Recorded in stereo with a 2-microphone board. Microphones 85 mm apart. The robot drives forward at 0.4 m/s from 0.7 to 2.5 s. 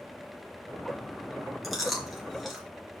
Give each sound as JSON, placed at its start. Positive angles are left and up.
{"t": 1.6, "sound": "chewing", "side_deg": 0, "distance_m": 2.5}